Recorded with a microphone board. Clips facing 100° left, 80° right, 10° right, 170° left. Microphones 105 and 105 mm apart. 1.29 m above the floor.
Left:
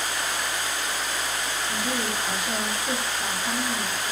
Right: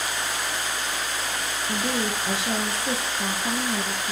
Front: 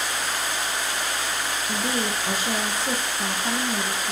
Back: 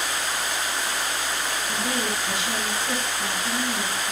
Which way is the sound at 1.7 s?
65° right.